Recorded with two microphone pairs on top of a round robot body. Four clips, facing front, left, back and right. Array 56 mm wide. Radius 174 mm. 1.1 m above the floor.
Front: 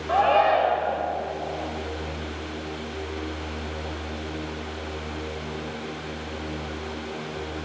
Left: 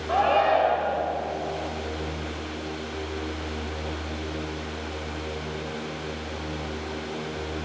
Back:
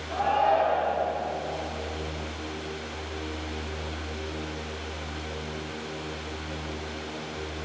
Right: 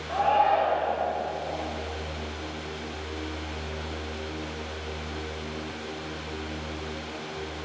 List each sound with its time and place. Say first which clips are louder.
0.1 s a shout: left 1 dB, front 4 dB; 25° left, 5 m